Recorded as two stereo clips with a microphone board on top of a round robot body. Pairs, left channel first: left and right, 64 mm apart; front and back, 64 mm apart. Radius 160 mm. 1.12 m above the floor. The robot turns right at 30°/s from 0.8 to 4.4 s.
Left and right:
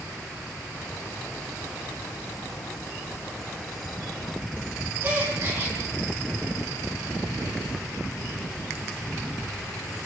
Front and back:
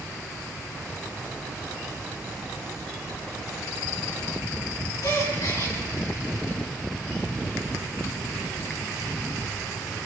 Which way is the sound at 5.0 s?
35° right.